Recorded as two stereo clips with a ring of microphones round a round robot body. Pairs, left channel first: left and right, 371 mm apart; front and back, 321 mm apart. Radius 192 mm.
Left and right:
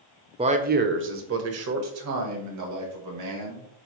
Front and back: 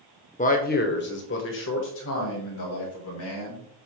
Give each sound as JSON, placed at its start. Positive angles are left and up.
{"t": 0.4, "sound": "a man speaking", "azimuth_deg": -35, "distance_m": 1.0}